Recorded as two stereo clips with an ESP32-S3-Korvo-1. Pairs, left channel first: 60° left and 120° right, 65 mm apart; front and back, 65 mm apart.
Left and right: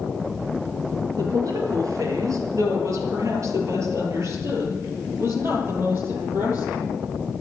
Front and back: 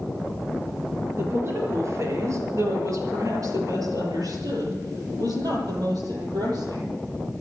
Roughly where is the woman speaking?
Behind right.